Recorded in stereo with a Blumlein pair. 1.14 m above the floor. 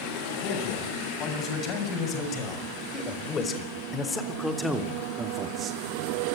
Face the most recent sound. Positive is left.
turn(degrees=-30)